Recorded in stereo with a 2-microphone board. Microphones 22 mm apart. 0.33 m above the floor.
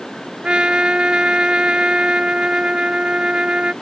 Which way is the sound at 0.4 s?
55° right (ahead or behind).